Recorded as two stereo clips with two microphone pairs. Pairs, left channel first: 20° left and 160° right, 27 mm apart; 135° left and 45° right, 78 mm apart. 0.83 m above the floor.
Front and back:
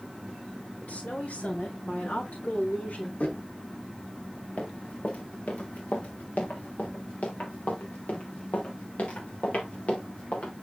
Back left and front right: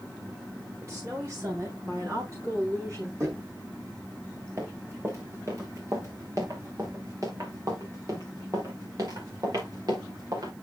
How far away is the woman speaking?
About 9.5 m.